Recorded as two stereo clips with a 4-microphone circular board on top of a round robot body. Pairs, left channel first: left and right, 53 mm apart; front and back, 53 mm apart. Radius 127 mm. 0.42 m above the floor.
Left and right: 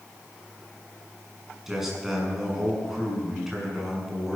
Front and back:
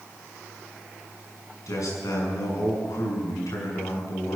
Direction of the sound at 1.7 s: 10° right.